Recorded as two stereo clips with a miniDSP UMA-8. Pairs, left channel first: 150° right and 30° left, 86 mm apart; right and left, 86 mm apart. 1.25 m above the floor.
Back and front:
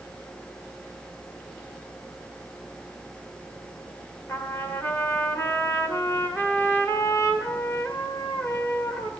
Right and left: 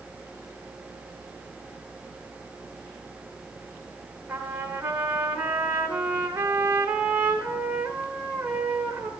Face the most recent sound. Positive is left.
turn(degrees=150)